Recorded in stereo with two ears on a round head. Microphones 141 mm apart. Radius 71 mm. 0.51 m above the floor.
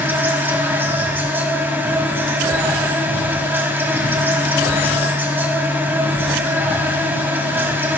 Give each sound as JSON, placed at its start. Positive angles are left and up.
{"t": 0.0, "sound": "an insect", "side_deg": -15, "distance_m": 1.5}